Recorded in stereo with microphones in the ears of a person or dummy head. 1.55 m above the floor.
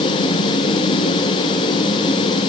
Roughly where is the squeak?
I don't hear a squeak.